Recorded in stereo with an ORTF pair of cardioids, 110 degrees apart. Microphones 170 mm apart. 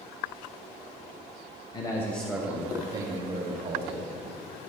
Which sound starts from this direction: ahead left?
A man speaking, at 1.7 s.